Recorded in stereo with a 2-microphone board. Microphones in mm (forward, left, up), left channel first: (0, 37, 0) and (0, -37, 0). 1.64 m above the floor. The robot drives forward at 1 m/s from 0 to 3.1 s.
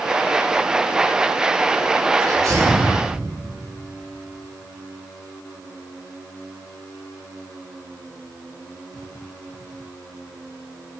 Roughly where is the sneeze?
Right.